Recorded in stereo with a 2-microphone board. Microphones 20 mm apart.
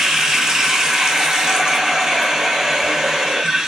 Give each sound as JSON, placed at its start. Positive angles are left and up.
{"t": 0.0, "sound": "running water", "side_deg": -50, "distance_m": 0.9}